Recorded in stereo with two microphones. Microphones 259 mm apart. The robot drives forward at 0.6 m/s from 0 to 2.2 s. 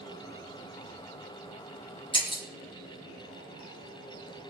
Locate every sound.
2.1 s breaking glass: 20° left (ahead or behind), 4 m